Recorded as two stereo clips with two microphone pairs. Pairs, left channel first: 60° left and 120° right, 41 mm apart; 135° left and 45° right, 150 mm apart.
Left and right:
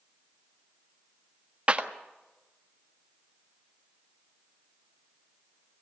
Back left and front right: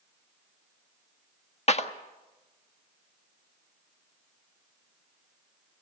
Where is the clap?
Straight behind, 1.4 m.